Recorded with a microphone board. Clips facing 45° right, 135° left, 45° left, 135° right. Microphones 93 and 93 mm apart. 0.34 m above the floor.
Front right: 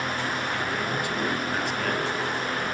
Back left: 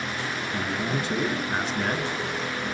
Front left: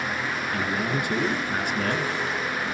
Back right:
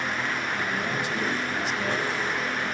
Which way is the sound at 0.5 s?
70° left.